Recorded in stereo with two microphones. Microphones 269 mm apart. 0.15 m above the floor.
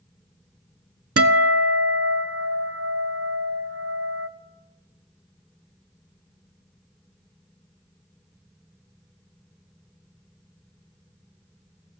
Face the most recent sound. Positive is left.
turn(degrees=-55)  # may be behind; listen again after turning